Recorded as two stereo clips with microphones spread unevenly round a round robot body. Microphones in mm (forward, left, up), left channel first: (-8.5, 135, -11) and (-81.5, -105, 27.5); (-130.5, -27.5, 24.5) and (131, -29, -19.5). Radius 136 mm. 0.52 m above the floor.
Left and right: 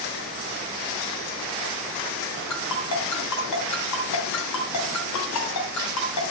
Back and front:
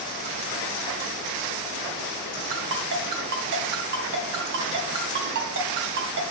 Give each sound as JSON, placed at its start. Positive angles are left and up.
{"t": 2.5, "sound": "a ringtone", "azimuth_deg": 50, "distance_m": 2.5}